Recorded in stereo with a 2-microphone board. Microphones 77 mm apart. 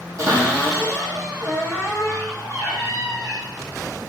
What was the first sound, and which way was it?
A cupboard door, 40° right (ahead or behind).